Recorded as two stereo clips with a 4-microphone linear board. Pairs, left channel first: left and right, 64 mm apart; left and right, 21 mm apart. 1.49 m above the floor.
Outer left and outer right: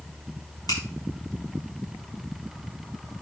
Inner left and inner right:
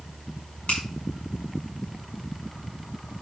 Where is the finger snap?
90° left, 6.5 m.